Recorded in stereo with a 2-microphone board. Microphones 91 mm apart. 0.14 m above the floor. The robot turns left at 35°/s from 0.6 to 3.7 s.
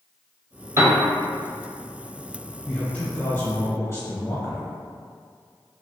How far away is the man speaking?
About 1.4 m.